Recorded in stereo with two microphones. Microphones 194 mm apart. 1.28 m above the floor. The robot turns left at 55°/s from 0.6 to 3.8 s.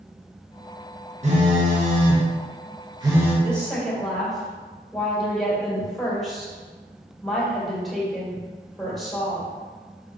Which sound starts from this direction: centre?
A woman speaking, at 3.4 s.